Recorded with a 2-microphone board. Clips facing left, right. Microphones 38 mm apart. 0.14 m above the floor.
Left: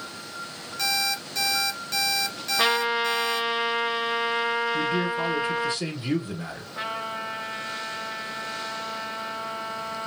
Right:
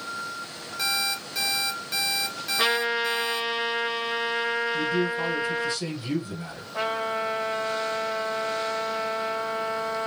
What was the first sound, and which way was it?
An alarm clock, 10° right (ahead or behind).